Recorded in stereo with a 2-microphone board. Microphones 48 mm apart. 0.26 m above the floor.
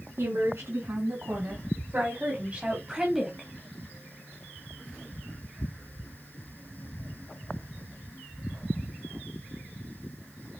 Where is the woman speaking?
65° right (ahead or behind), 3.5 m; by 3.5 s 5° left (ahead or behind), 1.8 m.